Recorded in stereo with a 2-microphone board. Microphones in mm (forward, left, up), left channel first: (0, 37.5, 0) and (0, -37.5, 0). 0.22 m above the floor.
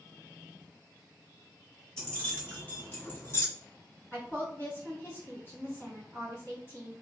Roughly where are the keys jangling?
Centre.